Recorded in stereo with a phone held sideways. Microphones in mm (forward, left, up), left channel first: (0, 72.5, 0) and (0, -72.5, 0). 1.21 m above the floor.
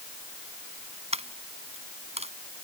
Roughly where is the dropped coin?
Right.